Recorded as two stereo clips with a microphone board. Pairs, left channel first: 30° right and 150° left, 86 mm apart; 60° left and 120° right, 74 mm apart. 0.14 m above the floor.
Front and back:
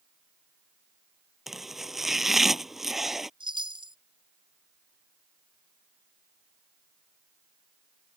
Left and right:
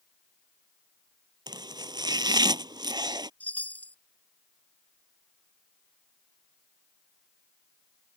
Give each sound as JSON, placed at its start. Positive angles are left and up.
{"t": 1.5, "sound": "chopping", "azimuth_deg": -125}
{"t": 3.4, "sound": "a chime", "azimuth_deg": 130}